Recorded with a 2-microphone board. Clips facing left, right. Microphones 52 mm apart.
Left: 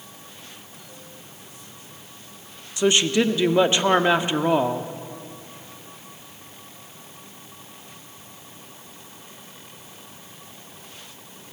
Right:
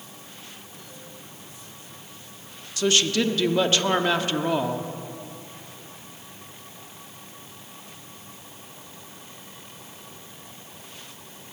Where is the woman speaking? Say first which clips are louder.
Left 3 dB; 20° left (ahead or behind), 1.1 m.